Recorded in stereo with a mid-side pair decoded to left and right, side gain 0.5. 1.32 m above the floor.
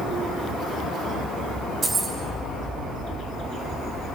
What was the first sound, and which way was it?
Keys jangling, 35° right.